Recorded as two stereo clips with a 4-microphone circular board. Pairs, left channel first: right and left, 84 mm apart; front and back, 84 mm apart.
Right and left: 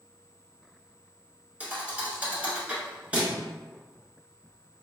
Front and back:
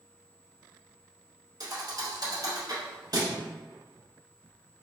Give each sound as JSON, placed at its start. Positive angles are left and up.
{"t": 1.6, "sound": "a thud", "azimuth_deg": 160, "distance_m": 1.3}